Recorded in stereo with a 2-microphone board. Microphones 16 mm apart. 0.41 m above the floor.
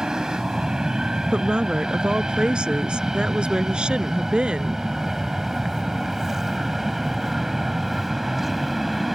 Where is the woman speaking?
75° right (ahead or behind).